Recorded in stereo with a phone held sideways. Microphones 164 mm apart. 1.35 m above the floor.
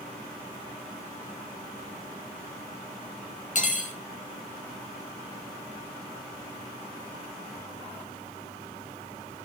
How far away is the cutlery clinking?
About 0.6 m.